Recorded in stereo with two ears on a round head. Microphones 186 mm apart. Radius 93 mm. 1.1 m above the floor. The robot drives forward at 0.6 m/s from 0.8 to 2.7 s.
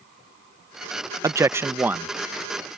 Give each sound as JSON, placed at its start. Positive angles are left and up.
{"t": 1.2, "sound": "a man speaking", "side_deg": -15}